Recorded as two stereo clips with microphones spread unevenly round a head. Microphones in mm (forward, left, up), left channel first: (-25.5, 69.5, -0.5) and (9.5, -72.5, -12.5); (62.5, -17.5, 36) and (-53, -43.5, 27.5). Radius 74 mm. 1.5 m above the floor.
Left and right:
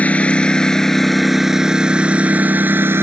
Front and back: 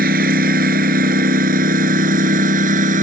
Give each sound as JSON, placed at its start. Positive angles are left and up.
{"t": 0.0, "sound": "a lawn mower", "azimuth_deg": -175}